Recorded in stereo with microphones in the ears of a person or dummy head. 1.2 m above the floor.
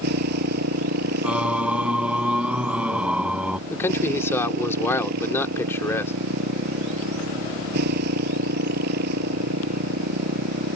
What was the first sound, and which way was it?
A motorcycle, 60° right (ahead or behind).